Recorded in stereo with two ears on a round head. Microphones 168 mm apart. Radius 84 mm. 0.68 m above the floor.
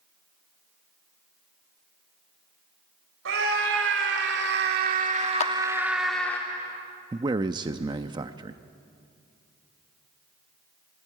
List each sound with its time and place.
3.2 s a scream: 75° right (ahead or behind), 3.5 m; by 6.4 s 10° left (ahead or behind), 1.9 m
5.4 s a clap: 35° left (ahead or behind), 0.7 m
7.1 s a man speaking: 25° right (ahead or behind), 0.6 m